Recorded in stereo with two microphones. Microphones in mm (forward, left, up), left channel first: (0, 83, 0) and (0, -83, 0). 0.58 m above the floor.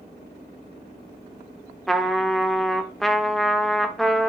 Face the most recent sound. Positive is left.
turn(degrees=0)  # may be behind; listen again after turning